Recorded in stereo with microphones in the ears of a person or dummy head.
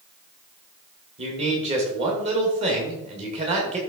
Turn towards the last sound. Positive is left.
turn(degrees=-35)  # may be behind; listen again after turning